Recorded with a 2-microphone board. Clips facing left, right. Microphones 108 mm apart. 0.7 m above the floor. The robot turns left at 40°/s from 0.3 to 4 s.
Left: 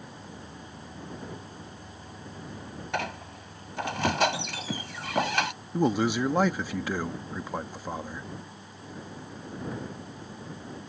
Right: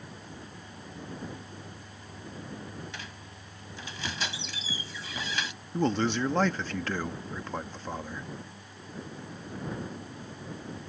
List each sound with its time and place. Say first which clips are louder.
2.9 s a squeak: left 12 dB; 110° left; by 5.5 s 65° left
5.7 s a man speaking: left 2 dB; 10° left (ahead or behind)